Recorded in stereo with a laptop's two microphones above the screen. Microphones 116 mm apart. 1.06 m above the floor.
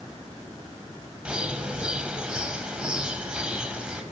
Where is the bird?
10° right (ahead or behind), 4.5 m.